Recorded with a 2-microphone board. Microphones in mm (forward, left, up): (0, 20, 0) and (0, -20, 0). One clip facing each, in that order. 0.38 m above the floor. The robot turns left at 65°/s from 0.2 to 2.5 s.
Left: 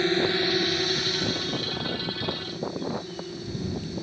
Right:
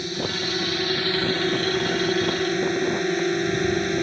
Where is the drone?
35° left; by 4.0 s 115° right.